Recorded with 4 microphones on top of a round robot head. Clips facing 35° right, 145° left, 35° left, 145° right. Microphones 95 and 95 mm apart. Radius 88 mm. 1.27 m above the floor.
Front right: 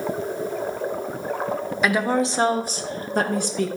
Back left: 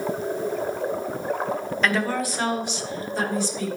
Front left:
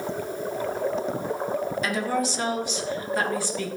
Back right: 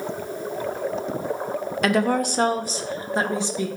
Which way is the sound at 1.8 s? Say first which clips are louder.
Front right 4 dB, back right 10 dB; 115° right.